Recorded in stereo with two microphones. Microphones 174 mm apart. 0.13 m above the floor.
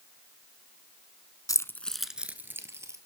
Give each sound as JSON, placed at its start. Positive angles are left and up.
{"t": 1.5, "sound": "keys jangling", "side_deg": 20, "distance_m": 0.8}